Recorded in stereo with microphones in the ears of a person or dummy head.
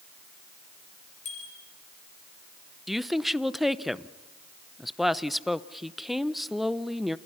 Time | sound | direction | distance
1.2 | a bicycle bell | 40° left (ahead or behind) | 5.5 m
2.9 | a woman speaking | centre (ahead or behind) | 0.7 m